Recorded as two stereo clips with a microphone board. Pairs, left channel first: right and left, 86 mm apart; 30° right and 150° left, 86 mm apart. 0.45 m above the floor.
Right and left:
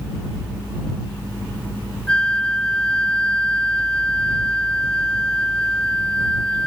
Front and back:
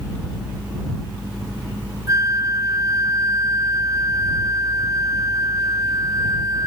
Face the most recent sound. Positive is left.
turn(degrees=-165)